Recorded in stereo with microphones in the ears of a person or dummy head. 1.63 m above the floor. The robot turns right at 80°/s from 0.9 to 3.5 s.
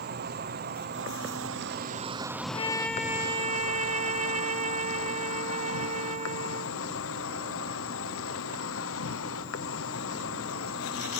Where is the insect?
120° right; by 11.2 s 85° left.